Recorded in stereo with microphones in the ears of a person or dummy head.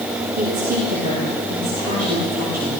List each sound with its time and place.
0.4 s a woman speaking: 40° right (ahead or behind), 5 m